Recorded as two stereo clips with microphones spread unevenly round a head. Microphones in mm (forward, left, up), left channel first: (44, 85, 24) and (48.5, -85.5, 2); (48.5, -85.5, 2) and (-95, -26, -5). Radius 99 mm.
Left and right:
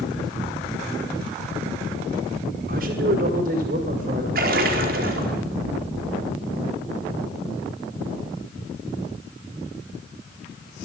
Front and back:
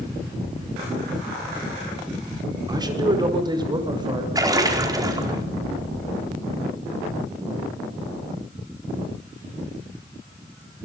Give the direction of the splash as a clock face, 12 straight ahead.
5 o'clock.